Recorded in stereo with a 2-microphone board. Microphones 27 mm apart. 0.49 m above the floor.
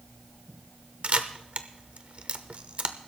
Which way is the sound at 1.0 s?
50° right (ahead or behind).